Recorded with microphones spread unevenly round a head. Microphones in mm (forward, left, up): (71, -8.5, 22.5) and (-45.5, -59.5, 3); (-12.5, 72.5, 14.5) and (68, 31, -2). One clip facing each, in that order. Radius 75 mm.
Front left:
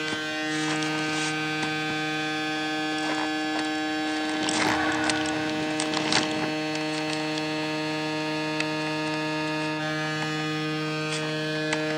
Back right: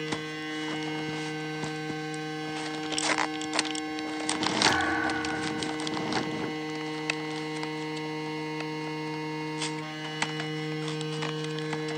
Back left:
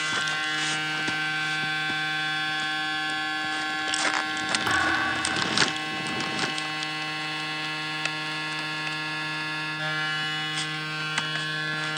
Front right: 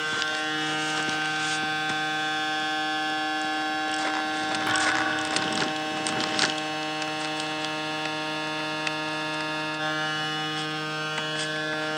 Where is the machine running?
35° left, 3.5 m.